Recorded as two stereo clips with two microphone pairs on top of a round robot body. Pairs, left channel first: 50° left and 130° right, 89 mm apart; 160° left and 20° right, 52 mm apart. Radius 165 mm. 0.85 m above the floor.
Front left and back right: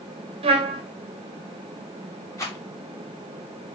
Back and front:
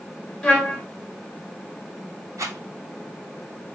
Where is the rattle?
10° right, 2.5 m.